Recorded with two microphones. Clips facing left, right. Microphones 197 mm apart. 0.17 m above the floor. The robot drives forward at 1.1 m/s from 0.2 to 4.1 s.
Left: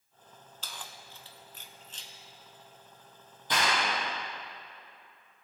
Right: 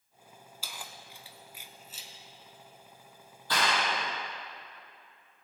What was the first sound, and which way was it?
Keys jangling, 10° right (ahead or behind).